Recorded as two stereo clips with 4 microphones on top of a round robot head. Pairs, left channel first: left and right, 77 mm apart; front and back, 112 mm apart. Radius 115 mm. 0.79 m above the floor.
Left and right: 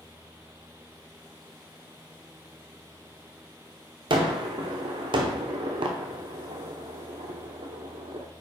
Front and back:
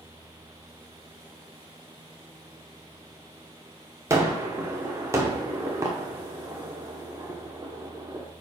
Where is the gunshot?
110° right, 1.0 m.